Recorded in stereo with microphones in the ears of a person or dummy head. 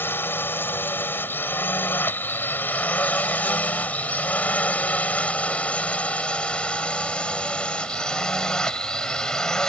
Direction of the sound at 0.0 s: 10° left (ahead or behind).